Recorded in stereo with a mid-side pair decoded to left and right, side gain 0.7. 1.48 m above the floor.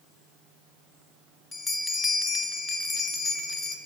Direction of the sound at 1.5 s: 15° left.